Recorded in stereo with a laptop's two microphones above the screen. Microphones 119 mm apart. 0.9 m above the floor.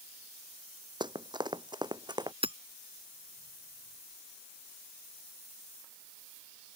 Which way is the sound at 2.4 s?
55° right (ahead or behind).